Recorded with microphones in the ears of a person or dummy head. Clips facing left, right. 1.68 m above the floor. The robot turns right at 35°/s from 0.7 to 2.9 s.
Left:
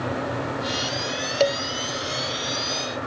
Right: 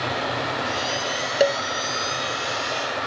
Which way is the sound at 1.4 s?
10° right (ahead or behind).